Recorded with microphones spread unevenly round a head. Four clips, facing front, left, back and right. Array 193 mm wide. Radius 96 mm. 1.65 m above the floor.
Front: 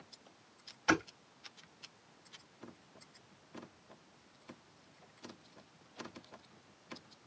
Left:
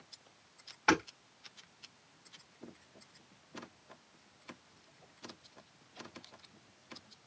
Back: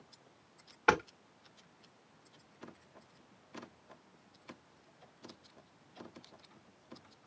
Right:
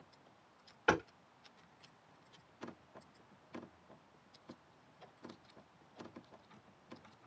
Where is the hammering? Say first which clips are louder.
Left 3 dB, back 3 dB; 165° left, 4.5 m.